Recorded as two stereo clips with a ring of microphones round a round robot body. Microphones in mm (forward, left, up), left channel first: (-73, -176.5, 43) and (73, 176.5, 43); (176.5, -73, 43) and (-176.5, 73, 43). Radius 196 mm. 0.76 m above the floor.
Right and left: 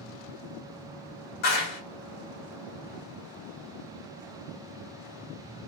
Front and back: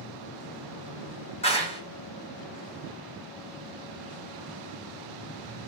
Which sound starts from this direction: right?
A clap, at 1.4 s.